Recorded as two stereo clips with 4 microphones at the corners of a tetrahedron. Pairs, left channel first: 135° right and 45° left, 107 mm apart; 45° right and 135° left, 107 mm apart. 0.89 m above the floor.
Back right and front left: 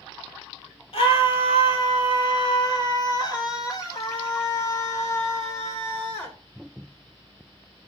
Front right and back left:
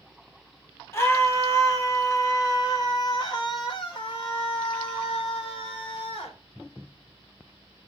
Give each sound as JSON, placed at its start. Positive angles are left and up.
{"t": 0.9, "sound": "a scream", "azimuth_deg": -110, "distance_m": 3.5}